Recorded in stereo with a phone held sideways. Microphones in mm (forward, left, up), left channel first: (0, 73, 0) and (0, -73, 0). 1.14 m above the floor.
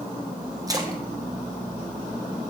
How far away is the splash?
About 0.9 m.